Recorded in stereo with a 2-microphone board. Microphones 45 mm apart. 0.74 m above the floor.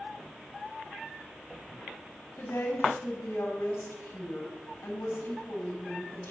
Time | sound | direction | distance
2.4 | a woman speaking | 85° left | 4.5 m